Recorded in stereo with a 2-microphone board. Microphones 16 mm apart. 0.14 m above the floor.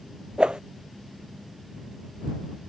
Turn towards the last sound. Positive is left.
turn(degrees=-80)